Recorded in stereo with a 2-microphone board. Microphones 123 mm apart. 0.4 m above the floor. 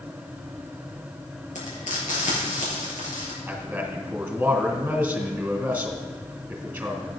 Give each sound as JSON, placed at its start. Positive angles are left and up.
{"t": 1.6, "sound": "frying", "side_deg": 85, "distance_m": 4.0}
{"t": 3.5, "sound": "a man speaking", "side_deg": -10, "distance_m": 2.5}